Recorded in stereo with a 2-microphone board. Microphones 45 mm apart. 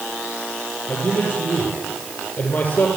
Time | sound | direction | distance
0.9 | a man speaking | 30° left (ahead or behind) | 8.5 m